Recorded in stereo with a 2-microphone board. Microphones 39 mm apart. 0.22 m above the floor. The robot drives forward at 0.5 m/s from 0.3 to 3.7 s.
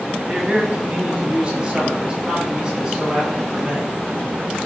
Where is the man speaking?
35° right (ahead or behind), 1.2 m; by 3.9 s 20° right (ahead or behind), 2 m.